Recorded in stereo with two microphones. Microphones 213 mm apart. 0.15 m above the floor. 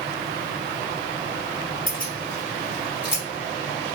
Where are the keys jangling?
45° left (ahead or behind), 1.5 m; by 3.2 s 50° left (ahead or behind), 1.6 m.